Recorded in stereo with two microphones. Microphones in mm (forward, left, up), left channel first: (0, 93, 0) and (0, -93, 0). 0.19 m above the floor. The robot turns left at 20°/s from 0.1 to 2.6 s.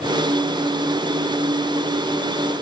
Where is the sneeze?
No sneeze in this recording.